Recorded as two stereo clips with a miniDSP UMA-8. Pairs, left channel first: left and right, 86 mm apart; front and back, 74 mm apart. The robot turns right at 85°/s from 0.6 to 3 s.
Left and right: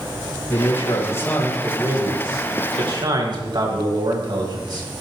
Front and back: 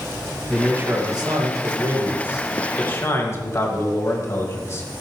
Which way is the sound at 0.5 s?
105° left.